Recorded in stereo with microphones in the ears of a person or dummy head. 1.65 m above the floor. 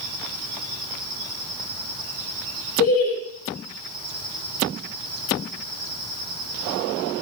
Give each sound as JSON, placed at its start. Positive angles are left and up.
{"t": 2.8, "sound": "laughter", "side_deg": 70, "distance_m": 0.6}